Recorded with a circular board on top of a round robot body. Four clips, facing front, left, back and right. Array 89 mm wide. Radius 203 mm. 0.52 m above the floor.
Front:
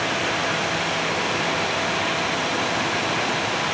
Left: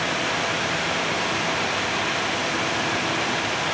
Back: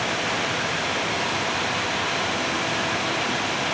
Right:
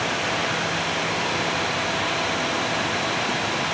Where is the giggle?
I don't hear a giggle.